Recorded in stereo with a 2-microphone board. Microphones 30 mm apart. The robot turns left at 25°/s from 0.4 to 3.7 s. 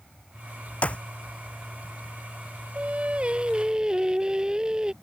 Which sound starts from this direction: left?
A clap, at 0.8 s.